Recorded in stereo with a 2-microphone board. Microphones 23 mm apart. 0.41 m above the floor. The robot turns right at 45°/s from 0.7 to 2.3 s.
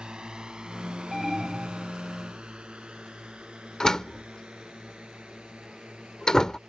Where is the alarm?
175° right; by 1.9 s 140° right.